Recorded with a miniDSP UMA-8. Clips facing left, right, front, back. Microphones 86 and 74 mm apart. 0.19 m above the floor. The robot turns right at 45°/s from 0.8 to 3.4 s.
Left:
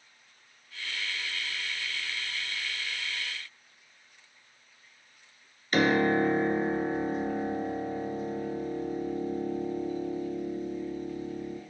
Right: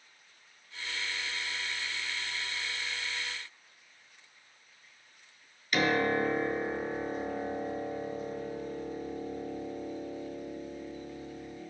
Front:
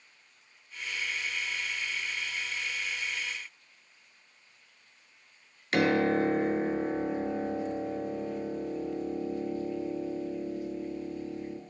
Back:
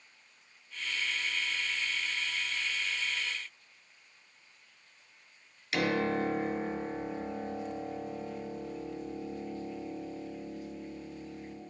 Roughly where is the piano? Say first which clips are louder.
Left 4 dB, front 5 dB; ahead left.